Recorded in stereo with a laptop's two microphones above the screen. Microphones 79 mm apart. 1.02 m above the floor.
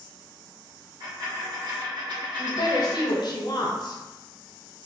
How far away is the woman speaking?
About 0.6 m.